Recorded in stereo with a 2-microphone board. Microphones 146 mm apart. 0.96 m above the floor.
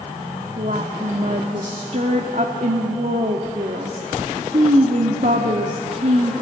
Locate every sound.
0.6 s a woman speaking: 60° right (ahead or behind), 1.8 m